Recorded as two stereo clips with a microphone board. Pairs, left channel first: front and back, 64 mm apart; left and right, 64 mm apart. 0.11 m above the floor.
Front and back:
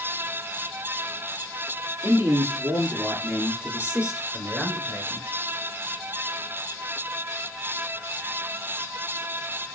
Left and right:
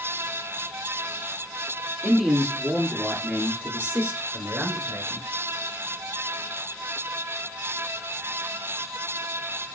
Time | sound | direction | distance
2.0 | a man speaking | 175° right | 2 m